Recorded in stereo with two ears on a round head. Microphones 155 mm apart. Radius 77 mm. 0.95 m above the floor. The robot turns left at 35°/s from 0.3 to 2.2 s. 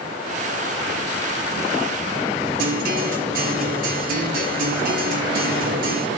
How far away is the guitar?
About 8.5 m.